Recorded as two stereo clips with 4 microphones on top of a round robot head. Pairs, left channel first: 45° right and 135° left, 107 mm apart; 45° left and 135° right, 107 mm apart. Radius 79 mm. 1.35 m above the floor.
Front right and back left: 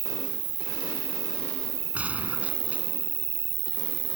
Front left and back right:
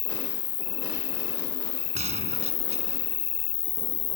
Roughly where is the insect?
Left.